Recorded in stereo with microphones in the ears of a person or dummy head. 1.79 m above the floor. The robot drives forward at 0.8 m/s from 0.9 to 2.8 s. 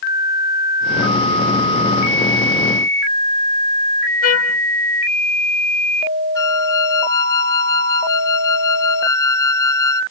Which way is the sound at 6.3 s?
20° left (ahead or behind).